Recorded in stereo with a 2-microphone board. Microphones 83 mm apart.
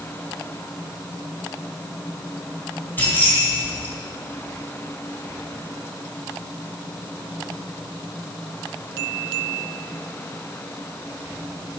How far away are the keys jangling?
About 2.5 m.